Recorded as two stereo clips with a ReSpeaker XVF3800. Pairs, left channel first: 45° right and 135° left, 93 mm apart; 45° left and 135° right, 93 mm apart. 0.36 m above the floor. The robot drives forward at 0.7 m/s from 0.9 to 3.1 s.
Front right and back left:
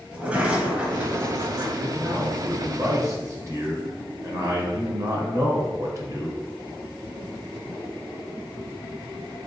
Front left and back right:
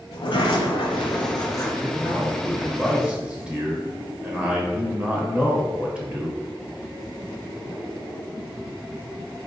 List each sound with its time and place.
0.1 s a sliding door: 60° left, 0.9 m; by 1.7 s 105° left, 0.8 m
1.8 s a man speaking: 40° left, 0.8 m; by 6.4 s 155° left, 1.0 m